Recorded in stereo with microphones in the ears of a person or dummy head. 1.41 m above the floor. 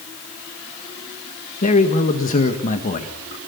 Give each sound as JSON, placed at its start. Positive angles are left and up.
{"t": 1.6, "sound": "a man speaking", "side_deg": 40, "distance_m": 1.8}